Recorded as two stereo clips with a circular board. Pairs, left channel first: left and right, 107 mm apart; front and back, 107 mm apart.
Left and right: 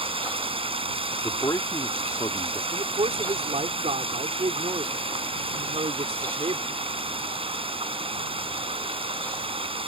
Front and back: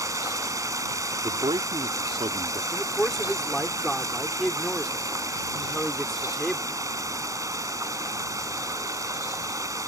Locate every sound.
0.0 s running water: 120° right
1.2 s a man speaking: 145° left
2.7 s a man speaking: 85° right